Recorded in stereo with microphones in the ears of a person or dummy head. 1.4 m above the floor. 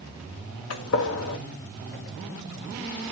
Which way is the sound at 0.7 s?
75° left (ahead or behind).